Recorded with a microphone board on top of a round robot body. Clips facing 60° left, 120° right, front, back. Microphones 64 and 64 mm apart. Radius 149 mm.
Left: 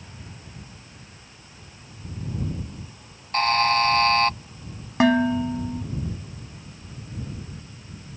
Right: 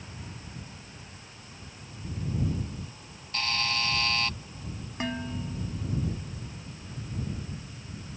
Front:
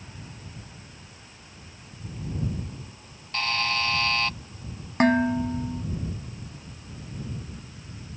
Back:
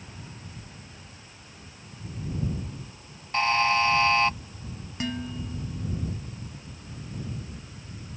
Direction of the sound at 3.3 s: 110° left.